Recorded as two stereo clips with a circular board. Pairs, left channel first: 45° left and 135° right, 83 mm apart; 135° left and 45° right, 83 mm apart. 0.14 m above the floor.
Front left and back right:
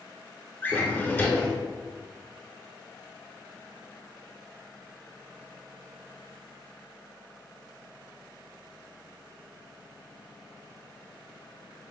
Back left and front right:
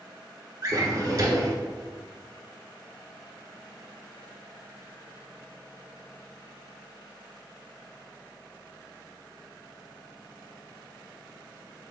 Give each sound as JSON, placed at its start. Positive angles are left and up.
{"t": 0.6, "sound": "a drawer", "azimuth_deg": -15, "distance_m": 0.8}